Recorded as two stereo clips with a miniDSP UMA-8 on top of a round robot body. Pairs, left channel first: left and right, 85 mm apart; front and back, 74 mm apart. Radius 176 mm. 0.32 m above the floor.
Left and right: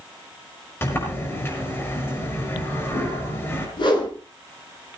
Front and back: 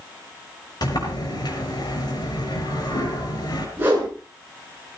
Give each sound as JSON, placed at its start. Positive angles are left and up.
{"t": 0.8, "sound": "a sliding door", "azimuth_deg": 30, "distance_m": 6.0}
{"t": 3.8, "sound": "a whoosh", "azimuth_deg": 115, "distance_m": 7.0}